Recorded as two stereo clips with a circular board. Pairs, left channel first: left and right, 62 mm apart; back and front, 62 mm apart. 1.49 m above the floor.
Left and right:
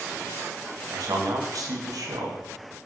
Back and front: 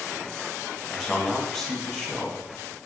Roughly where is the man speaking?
Right.